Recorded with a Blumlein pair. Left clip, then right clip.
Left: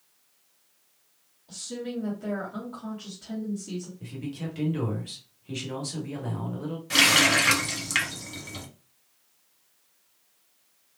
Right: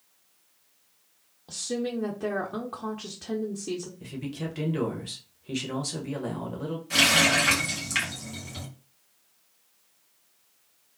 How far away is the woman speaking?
About 0.7 m.